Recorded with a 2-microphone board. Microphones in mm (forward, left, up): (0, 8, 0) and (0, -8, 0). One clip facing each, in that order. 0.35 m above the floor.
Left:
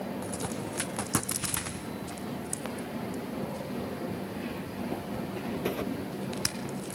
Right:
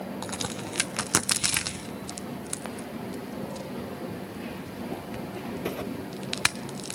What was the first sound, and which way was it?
A crack, 50° right (ahead or behind).